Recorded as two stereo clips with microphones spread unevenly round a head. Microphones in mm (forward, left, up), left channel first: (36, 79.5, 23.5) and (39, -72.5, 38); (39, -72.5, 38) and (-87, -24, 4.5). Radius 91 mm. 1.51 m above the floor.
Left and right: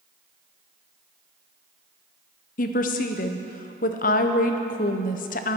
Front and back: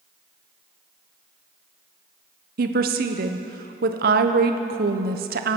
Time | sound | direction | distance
2.6 | a woman speaking | 135° left | 0.7 m